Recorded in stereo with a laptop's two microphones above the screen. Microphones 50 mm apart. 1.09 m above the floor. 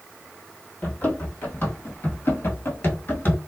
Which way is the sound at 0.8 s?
35° left (ahead or behind).